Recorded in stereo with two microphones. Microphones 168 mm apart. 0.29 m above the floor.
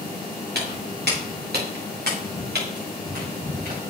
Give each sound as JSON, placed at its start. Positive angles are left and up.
{"t": 0.6, "sound": "footsteps", "side_deg": -85, "distance_m": 5.0}